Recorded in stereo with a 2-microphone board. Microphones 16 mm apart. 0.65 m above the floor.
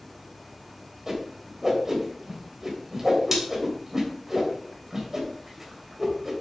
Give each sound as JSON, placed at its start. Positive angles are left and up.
{"t": 1.1, "sound": "a whoosh", "side_deg": -20, "distance_m": 3.5}